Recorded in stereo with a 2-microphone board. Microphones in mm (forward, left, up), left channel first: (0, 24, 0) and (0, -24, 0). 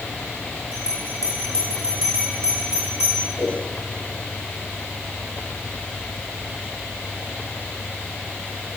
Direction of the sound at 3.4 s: 65° right (ahead or behind).